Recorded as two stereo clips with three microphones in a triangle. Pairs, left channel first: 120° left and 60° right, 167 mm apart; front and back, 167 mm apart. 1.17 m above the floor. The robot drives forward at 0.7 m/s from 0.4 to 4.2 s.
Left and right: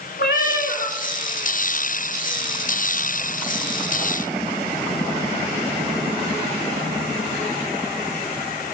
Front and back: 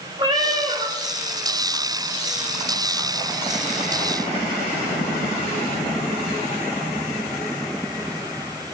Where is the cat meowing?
120° left, 1.7 m; by 1.0 s 130° left, 1.9 m.